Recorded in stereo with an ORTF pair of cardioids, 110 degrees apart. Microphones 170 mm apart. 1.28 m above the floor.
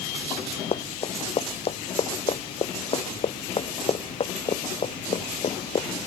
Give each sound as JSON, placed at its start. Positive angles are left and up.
{"t": 0.7, "sound": "running footsteps", "azimuth_deg": 35}